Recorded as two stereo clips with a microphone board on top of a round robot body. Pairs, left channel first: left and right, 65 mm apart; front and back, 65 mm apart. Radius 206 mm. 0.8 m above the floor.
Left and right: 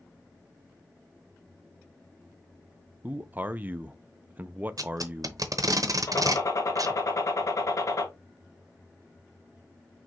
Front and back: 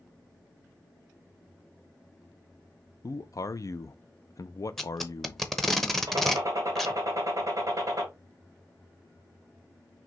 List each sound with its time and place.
3.0 s a man speaking: 25° right, 0.5 m
4.8 s tape being pulled: 90° right, 1.0 m
6.1 s a gunshot: 135° left, 1.8 m